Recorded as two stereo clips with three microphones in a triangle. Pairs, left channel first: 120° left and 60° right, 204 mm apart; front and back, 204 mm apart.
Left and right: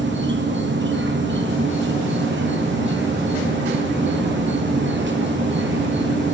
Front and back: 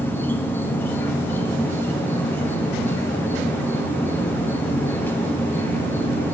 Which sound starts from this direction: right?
An insect, at 0.0 s.